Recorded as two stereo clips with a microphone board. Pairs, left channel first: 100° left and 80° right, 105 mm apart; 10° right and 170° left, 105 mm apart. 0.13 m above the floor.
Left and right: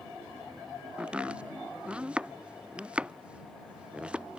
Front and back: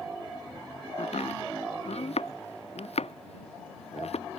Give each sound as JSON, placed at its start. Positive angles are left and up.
{"t": 1.0, "sound": "chopping", "azimuth_deg": 0}